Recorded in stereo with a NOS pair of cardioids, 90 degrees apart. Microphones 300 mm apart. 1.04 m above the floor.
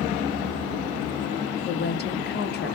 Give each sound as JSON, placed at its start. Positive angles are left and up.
{"t": 1.6, "sound": "a woman speaking", "azimuth_deg": 35, "distance_m": 1.0}